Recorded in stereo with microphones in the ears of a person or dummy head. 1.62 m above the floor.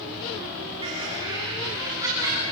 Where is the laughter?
30° right (ahead or behind), 2.5 m; by 2.4 s 15° right (ahead or behind), 4 m.